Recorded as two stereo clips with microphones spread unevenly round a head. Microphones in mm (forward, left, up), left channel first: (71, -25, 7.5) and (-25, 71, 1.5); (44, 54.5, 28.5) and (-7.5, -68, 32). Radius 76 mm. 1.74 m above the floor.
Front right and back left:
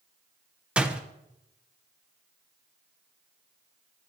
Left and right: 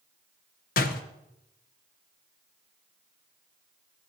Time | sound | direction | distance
0.8 | a door slam | 55° left | 1.1 m